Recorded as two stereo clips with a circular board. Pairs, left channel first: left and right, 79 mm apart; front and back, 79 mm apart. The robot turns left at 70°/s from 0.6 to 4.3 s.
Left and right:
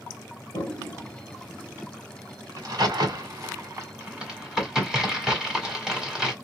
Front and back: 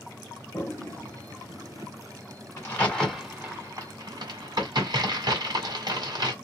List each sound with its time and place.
0.5 s a toilet flushing: 60° left, 1.3 m; by 1.9 s 30° right, 1.3 m
2.6 s a crack: 50° right, 1.5 m; by 6.3 s 175° right, 1.5 m